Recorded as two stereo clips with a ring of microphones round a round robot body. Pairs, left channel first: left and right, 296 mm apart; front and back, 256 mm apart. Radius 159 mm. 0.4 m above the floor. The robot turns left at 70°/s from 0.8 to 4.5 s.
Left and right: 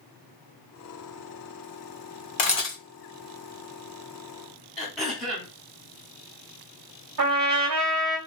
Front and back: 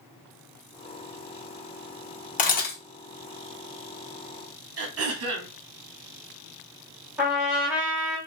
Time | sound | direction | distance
2.4 | a camera shutter | 40° left | 1.2 m
4.8 | throat clearing | straight behind | 1.0 m
7.2 | a trumpet | 95° right | 1.3 m